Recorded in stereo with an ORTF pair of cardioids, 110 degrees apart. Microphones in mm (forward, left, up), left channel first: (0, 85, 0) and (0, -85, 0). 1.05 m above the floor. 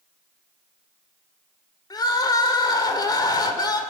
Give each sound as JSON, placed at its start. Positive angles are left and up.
{"t": 1.9, "sound": "crying", "azimuth_deg": 25, "distance_m": 2.0}